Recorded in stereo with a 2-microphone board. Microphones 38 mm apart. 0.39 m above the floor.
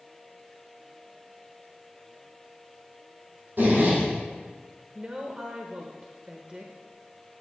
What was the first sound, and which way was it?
A zipper, 55° right (ahead or behind).